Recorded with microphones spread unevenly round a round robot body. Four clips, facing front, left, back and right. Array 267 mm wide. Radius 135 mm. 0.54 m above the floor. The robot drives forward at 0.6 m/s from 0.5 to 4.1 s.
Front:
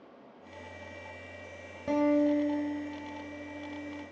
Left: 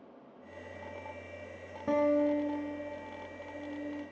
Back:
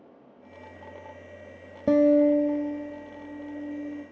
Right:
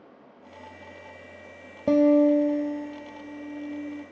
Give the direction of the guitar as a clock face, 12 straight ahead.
5 o'clock.